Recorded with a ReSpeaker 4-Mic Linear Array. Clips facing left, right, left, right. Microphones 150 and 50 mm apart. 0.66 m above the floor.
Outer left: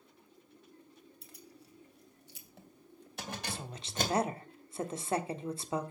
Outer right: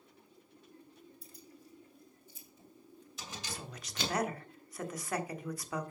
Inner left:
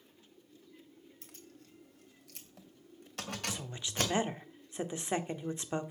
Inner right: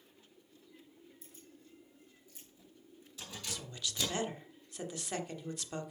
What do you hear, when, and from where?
1.2 s keys jangling: 75° left (ahead or behind), 2.5 m; by 4.2 s 45° left (ahead or behind), 3 m
3.5 s a woman speaking: 25° left (ahead or behind), 1.3 m